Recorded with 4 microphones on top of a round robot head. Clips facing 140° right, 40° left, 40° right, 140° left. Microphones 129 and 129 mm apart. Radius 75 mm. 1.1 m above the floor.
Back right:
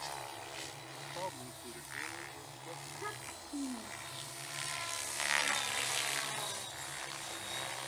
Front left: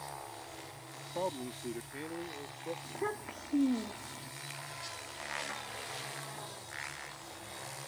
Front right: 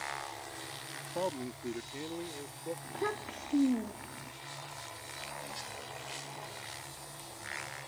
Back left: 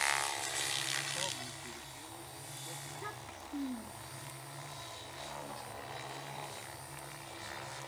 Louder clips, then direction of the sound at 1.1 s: Front left 7 dB, front right 9 dB; 10° right.